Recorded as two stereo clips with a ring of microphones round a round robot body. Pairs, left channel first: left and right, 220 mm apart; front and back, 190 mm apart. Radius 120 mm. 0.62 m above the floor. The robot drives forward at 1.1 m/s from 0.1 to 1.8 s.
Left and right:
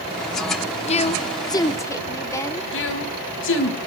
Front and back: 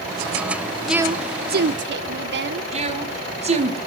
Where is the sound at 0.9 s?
90° left, 0.6 m; by 2.6 s 165° left, 1.2 m.